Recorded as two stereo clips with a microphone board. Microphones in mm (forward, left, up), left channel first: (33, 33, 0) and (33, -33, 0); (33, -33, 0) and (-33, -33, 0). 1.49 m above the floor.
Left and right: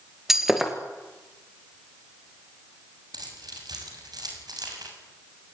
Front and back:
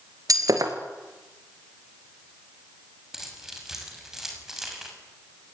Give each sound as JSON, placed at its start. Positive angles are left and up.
{"t": 0.3, "sound": "breaking glass", "azimuth_deg": -175, "distance_m": 3.0}
{"t": 3.1, "sound": "keys jangling", "azimuth_deg": -95, "distance_m": 6.0}